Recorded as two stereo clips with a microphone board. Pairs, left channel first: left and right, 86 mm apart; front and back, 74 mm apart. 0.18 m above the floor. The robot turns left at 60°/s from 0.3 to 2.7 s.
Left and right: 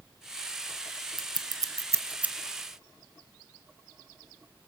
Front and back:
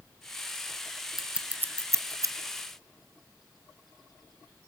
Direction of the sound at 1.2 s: 95° right.